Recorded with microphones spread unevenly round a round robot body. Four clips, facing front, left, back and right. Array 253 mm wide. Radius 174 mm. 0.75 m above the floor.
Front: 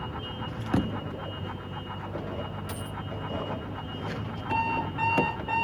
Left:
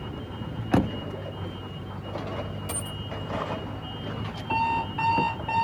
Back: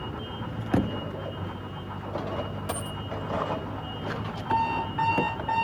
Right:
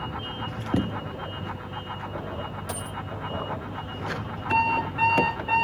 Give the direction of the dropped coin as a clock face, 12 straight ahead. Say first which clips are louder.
Right 2 dB, back 4 dB; 5 o'clock.